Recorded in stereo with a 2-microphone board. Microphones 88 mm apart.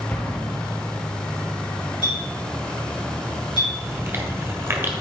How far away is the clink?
About 3 m.